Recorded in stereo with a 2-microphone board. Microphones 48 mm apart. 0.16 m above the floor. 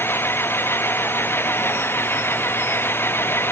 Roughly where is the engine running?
Left.